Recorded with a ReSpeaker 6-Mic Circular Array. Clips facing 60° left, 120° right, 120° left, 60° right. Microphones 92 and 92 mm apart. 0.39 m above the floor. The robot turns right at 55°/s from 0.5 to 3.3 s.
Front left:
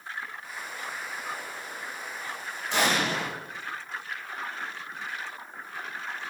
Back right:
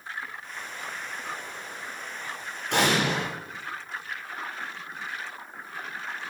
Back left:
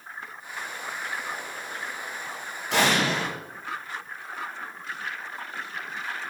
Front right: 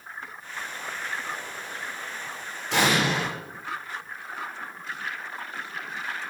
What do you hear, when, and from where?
2.7 s an explosion: 155° right, 8 m; by 3.3 s 125° right, 8 m